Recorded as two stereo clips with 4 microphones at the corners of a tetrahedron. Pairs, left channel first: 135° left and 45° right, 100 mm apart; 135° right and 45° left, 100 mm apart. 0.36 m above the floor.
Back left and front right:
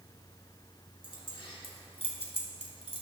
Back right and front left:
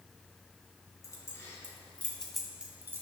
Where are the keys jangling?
170° left, 2.5 m; by 3.0 s 105° left, 1.5 m.